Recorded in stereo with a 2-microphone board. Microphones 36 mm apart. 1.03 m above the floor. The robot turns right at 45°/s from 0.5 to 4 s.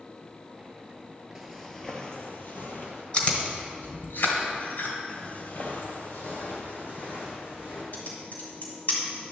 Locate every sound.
1.4 s footsteps: 10° right (ahead or behind), 1.0 m; by 3.0 s 55° left (ahead or behind), 1.8 m
3.1 s chewing: 35° left (ahead or behind), 1.7 m; by 5.0 s 65° left (ahead or behind), 1.7 m
5.1 s footsteps: 40° left (ahead or behind), 1.4 m; by 7.8 s 70° left (ahead or behind), 4 m
7.9 s typing on a keyboard: 55° left (ahead or behind), 2 m